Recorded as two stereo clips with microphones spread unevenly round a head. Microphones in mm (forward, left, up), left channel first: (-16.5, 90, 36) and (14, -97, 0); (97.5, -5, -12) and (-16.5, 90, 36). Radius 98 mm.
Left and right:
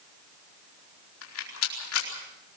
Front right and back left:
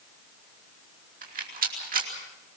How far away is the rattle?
About 4.5 m.